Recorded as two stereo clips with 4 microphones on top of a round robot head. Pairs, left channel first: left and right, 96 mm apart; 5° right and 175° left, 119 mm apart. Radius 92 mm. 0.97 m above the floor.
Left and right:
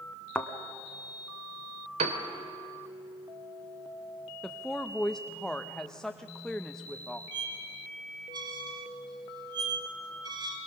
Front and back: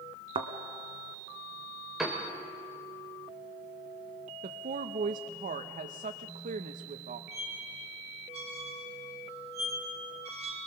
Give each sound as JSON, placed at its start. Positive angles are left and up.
{"t": 0.3, "sound": "a thud", "azimuth_deg": 165, "distance_m": 1.0}
{"t": 2.0, "sound": "a piano", "azimuth_deg": -95, "distance_m": 1.5}
{"t": 4.4, "sound": "a woman speaking", "azimuth_deg": 175, "distance_m": 0.8}
{"t": 7.3, "sound": "a squeak", "azimuth_deg": -130, "distance_m": 1.8}